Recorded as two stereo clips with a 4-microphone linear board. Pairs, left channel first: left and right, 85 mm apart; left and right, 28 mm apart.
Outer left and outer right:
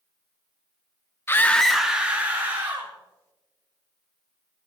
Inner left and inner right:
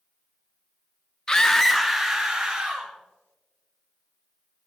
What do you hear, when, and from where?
1.3 s a scream: 25° left (ahead or behind), 0.6 m; by 2.9 s 20° right (ahead or behind), 2.0 m